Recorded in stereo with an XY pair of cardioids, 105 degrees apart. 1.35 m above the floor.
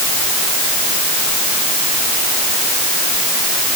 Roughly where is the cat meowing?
I don't hear a cat meowing.